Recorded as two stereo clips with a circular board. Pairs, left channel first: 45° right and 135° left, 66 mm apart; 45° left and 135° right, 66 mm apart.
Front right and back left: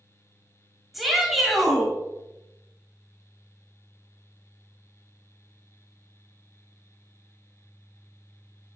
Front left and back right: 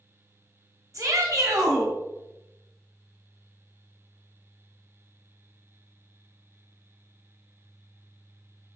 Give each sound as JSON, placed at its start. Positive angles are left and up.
{"t": 0.9, "sound": "a shout", "azimuth_deg": -135, "distance_m": 1.3}